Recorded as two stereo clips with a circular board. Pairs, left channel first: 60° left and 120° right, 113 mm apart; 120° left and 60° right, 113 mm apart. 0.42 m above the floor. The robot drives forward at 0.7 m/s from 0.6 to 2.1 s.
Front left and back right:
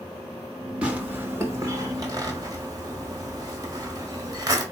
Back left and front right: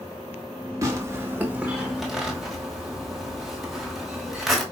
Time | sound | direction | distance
0.8 | tearing paper | 50° right | 1.0 m